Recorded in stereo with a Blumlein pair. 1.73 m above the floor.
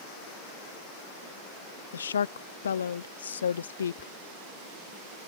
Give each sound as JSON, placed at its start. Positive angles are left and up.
{"t": 1.9, "sound": "a woman speaking", "azimuth_deg": 65}
{"t": 4.0, "sound": "whispering", "azimuth_deg": 30}